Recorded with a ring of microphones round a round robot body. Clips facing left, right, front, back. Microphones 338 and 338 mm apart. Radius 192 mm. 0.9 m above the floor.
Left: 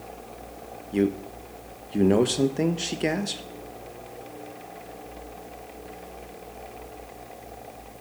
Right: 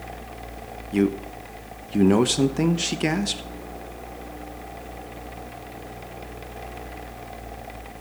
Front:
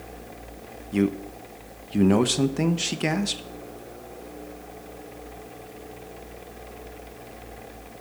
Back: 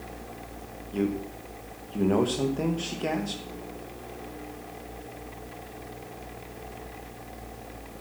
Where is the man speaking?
30° right, 1.2 m.